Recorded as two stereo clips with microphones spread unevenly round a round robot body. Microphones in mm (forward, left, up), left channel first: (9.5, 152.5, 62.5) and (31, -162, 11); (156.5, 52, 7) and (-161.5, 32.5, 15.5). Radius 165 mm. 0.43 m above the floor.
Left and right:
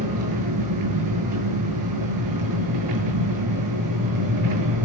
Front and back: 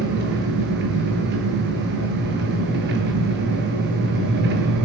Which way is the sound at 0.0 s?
115° right.